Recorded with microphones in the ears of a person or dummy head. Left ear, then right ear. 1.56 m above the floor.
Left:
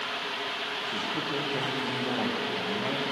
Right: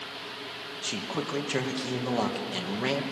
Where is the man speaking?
85° right, 2.0 m.